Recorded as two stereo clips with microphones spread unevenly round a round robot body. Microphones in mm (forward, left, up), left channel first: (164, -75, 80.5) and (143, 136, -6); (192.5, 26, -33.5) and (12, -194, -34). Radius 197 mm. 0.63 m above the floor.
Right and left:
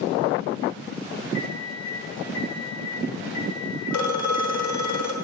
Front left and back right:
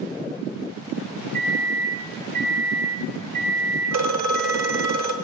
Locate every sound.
1.3 s a microwave: 145° right, 3 m
3.9 s a phone ringing: 95° right, 1.1 m